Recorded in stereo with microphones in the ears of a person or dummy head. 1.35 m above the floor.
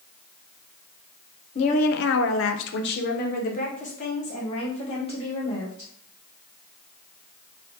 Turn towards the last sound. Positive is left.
turn(degrees=30)  # may be behind; listen again after turning